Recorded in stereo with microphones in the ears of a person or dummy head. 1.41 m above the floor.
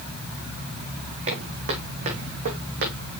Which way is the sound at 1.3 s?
50° right (ahead or behind).